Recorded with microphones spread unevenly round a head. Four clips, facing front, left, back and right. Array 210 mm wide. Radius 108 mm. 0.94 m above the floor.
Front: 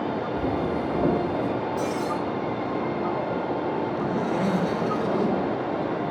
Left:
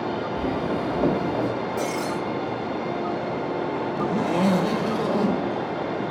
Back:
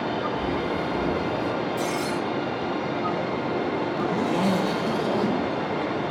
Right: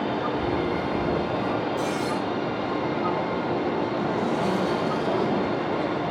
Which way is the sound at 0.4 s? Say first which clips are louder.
Even, front 1 dB; 60° left.